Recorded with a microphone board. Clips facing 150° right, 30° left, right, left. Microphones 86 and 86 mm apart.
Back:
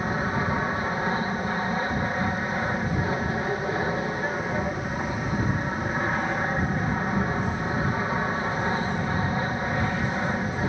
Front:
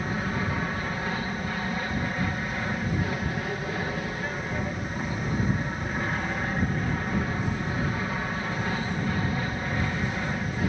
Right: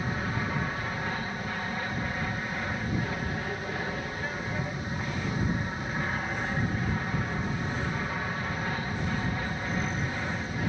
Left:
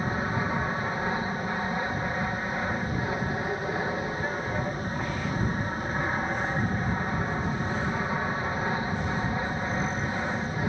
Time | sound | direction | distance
0.0 | an aircraft | 155° left | ?